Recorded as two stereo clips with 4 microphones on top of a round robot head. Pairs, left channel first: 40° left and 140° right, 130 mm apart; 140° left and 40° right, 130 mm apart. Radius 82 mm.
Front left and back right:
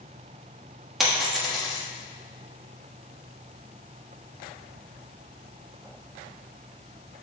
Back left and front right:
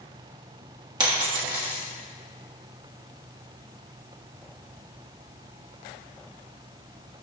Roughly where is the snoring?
No snoring in this recording.